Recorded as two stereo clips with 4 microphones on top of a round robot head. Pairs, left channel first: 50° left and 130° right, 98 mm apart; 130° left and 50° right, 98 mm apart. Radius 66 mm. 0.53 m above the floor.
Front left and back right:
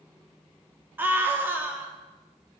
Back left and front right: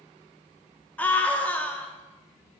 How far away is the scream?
About 0.7 m.